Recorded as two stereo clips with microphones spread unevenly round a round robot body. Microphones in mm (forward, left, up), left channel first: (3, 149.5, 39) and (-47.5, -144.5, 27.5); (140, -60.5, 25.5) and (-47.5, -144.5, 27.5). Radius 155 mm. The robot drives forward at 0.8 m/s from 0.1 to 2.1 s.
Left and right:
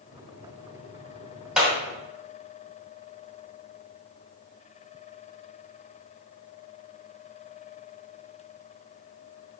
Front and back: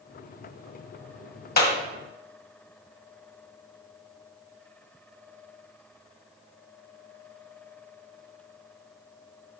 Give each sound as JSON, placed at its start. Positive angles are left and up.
{"t": 1.6, "sound": "a clap", "azimuth_deg": -15, "distance_m": 1.8}